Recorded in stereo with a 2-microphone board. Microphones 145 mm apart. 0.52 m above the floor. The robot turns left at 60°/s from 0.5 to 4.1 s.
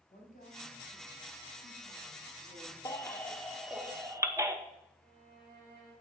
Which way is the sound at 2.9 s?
25° left (ahead or behind).